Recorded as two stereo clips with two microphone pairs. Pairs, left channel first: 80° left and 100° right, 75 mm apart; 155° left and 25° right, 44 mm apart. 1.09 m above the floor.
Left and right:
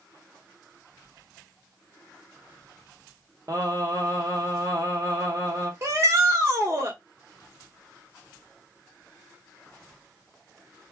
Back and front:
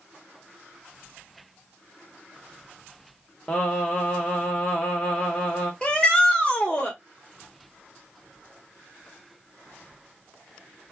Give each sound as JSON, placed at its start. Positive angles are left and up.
{"t": 3.5, "sound": "singing", "azimuth_deg": -145, "distance_m": 1.3}
{"t": 5.8, "sound": "a shout", "azimuth_deg": -145, "distance_m": 1.5}